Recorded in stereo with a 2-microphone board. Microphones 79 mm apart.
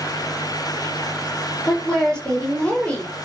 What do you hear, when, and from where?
1.7 s a woman speaking: 10° left (ahead or behind), 6 m; by 3.1 s 15° left (ahead or behind), 6.5 m